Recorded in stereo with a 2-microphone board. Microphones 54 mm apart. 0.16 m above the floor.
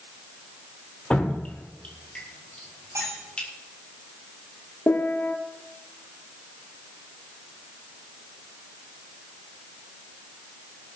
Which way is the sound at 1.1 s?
20° left (ahead or behind).